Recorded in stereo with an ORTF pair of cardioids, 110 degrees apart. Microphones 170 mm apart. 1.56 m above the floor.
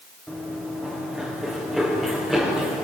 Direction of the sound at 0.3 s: Straight ahead.